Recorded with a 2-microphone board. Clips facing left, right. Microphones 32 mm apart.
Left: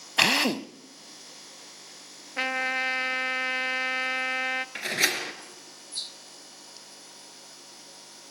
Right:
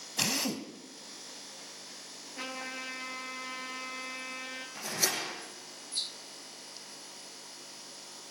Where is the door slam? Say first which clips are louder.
Left 4 dB; 65° left (ahead or behind), 2.5 m.